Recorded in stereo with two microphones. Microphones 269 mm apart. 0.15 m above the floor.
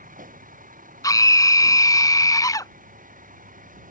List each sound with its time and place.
0.0 s a vehicle: 30° right (ahead or behind)
1.0 s a scream: 15° left (ahead or behind)